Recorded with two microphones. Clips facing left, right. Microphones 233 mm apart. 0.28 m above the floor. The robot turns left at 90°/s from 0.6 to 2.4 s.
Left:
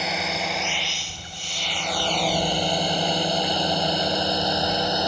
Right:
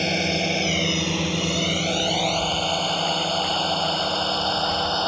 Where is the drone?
30° right (ahead or behind); by 5.1 s 15° left (ahead or behind).